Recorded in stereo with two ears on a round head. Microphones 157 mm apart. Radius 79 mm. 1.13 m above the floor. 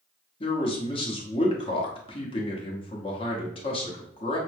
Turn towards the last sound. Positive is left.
turn(degrees=30)  # may be behind; listen again after turning